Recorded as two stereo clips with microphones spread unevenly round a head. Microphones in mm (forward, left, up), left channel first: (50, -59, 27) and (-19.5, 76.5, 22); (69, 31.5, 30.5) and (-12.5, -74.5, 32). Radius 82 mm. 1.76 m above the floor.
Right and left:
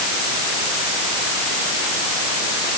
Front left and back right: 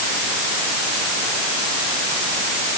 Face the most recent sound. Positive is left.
No sound to turn to.